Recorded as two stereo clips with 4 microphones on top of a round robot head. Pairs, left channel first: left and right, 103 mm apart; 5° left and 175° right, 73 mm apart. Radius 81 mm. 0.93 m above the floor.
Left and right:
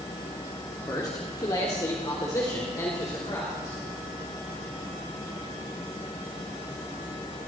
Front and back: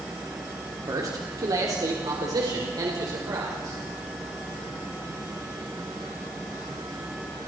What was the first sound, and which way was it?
A man speaking, 150° left.